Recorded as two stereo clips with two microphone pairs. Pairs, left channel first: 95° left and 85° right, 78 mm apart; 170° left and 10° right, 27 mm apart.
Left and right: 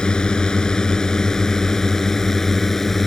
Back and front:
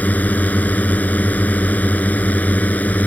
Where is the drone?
175° left; by 3.1 s 175° right.